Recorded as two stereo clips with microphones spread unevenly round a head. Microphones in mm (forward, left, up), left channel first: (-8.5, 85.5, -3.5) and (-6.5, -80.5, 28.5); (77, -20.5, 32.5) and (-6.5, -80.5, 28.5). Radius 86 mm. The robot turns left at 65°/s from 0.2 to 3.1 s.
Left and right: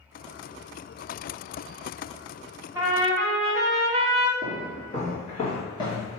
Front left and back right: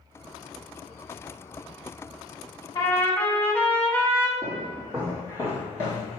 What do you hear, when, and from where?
2.8 s a trumpet: 10° right, 1.1 m; by 4.3 s 35° right, 1.1 m
4.4 s footsteps: 95° left, 1.7 m; by 6.2 s 15° left, 1.6 m